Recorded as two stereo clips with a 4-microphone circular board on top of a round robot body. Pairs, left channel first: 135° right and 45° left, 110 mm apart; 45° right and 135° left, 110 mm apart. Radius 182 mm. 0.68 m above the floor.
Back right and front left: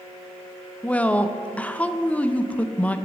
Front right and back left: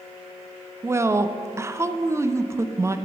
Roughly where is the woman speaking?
Behind.